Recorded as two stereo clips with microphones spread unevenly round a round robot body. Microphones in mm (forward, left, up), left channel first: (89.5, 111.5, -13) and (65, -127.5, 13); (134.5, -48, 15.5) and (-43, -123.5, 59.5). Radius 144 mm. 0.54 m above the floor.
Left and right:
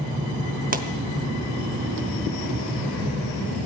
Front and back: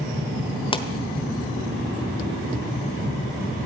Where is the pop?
40° right, 1.2 m.